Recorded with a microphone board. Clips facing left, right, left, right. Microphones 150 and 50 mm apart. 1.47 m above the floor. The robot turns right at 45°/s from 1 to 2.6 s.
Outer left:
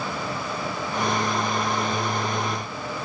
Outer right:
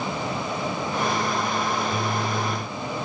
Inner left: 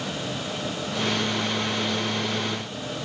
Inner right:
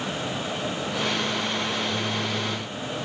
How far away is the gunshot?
No gunshot in this recording.